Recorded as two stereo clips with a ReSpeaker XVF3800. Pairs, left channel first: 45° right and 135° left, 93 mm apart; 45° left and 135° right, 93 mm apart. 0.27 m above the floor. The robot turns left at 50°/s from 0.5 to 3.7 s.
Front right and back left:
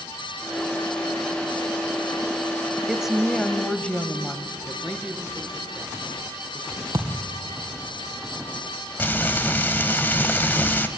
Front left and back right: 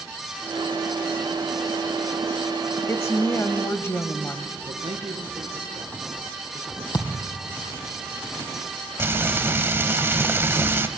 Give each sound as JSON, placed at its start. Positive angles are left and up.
{"t": 2.9, "sound": "a woman speaking", "azimuth_deg": 65, "distance_m": 1.0}
{"t": 4.7, "sound": "a man speaking", "azimuth_deg": -135, "distance_m": 5.0}
{"t": 6.9, "sound": "a thud", "azimuth_deg": 85, "distance_m": 2.5}
{"t": 9.0, "sound": "frying", "azimuth_deg": -95, "distance_m": 1.0}